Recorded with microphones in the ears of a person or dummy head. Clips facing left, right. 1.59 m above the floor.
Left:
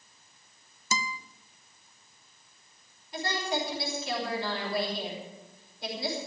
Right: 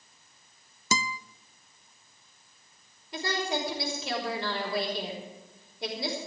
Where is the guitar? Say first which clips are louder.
Right 3 dB; 55° right (ahead or behind), 0.5 m.